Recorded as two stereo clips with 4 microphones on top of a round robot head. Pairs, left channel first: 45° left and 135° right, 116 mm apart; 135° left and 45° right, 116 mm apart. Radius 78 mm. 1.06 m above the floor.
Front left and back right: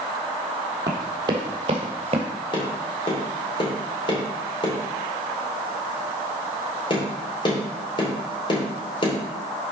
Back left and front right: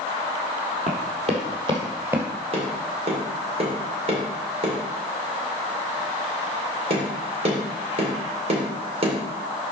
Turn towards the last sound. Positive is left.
turn(degrees=-5)